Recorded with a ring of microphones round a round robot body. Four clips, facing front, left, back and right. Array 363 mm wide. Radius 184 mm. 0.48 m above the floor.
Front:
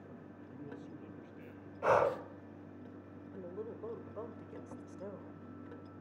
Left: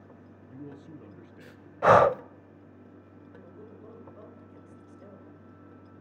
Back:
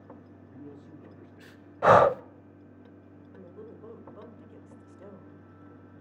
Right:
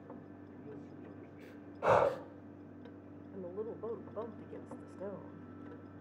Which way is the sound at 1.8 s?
140° left.